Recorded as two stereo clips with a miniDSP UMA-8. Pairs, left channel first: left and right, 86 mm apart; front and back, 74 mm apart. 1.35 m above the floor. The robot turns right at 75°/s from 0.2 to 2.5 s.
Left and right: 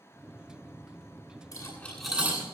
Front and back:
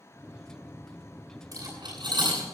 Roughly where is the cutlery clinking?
Behind left.